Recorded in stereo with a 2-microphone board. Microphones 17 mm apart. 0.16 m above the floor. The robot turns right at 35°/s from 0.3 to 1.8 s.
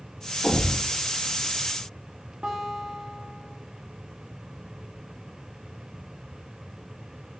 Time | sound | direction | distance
0.4 | a thud | 90° left | 2.5 m
2.4 | a guitar | 55° right (ahead or behind) | 2.5 m